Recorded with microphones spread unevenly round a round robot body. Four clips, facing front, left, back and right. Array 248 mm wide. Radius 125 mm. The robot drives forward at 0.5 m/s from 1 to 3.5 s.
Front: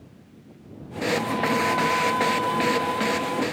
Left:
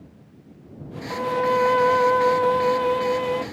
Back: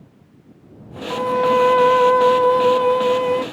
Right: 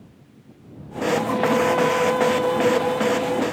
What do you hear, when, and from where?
1.1 s a violin: 165° left; by 3.4 s 170° left